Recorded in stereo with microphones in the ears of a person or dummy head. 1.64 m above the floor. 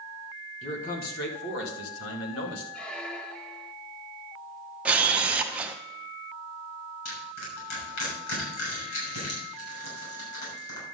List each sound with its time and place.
0.6 s a man speaking: 35° left (ahead or behind), 1.5 m; by 2.6 s 85° left, 2.5 m
2.7 s a squeak: 5° left (ahead or behind), 0.6 m
4.8 s a camera shutter: 10° right (ahead or behind), 0.8 m
7.0 s crushing: 80° left, 6.5 m